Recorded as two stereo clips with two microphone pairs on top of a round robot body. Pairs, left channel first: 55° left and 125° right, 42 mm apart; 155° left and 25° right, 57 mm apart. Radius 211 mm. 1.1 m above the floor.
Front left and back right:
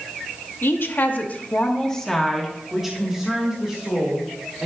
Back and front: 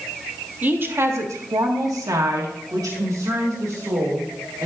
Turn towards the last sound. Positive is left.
turn(degrees=-60)